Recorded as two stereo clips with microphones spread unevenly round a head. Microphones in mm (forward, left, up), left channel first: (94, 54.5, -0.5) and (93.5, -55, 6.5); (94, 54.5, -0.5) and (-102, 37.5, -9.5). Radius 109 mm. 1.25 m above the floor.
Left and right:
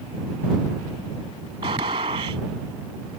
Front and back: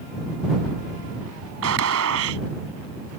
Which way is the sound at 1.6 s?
150° right.